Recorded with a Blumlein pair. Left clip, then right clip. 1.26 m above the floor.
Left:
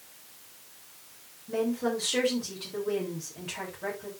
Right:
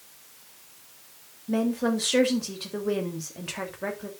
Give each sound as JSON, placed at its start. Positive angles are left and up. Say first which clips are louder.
{"t": 1.5, "sound": "a woman speaking", "louder": "right 2 dB", "azimuth_deg": -20, "distance_m": 3.0}